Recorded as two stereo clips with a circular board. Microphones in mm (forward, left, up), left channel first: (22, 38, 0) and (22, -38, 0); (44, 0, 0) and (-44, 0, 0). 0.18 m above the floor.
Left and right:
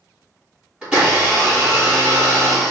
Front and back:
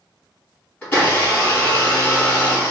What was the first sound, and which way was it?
A blender, 40° right.